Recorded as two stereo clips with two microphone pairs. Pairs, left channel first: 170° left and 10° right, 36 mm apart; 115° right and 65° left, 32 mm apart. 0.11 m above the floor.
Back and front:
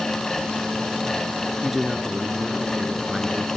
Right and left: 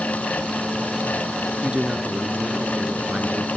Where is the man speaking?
60° left, 1.7 m.